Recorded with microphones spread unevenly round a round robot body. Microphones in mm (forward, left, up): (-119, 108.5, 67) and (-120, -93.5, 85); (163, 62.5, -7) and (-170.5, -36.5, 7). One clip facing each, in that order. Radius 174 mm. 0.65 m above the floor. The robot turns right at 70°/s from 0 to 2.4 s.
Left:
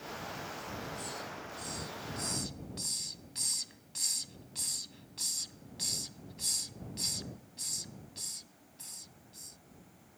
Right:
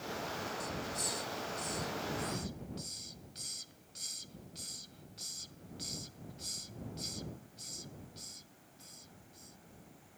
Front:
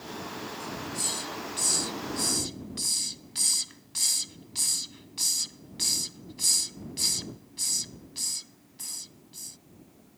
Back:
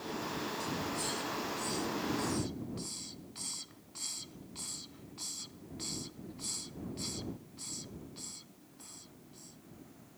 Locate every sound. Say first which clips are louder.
0.6 s a hiss: right 2 dB, even; 80° right; by 9.6 s 45° left